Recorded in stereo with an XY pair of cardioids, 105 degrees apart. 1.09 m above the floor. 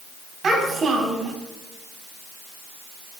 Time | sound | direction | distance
0.4 | a child speaking | 45° right | 7 m